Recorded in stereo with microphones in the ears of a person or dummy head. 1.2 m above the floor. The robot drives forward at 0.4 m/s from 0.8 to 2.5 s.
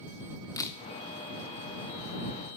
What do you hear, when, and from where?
0.6 s a camera shutter: 20° left (ahead or behind), 0.6 m